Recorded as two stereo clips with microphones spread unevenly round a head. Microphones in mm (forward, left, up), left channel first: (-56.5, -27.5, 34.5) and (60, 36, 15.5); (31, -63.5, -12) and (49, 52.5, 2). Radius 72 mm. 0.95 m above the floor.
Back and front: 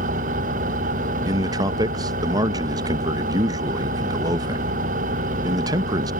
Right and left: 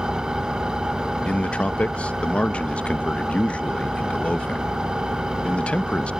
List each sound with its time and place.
0.0 s an engine running: 5° right
1.2 s a man speaking: 25° right